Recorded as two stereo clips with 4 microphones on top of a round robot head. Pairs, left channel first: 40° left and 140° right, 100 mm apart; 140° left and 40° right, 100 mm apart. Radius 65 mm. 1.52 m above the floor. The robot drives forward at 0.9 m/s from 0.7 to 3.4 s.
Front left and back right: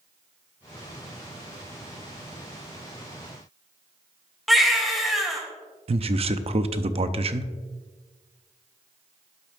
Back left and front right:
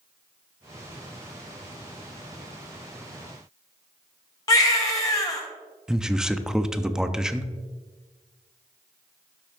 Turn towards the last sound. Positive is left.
turn(degrees=-125)